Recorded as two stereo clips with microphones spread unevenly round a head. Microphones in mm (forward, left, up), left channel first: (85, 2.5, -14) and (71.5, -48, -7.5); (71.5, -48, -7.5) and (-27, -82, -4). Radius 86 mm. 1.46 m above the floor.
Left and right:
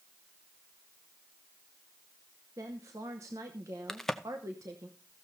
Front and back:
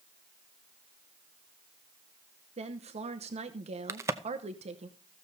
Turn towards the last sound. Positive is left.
turn(degrees=165)